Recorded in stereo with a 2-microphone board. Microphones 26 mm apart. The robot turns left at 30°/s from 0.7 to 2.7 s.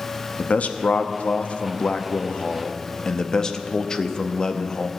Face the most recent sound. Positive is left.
turn(degrees=30)